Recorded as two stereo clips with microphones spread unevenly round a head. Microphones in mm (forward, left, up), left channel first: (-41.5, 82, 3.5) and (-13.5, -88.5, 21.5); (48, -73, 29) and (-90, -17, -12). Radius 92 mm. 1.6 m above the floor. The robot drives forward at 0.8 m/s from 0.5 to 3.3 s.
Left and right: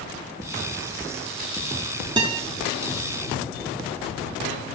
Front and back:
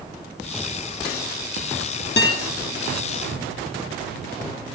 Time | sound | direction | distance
2.2 | a guitar | 15° right | 2.5 m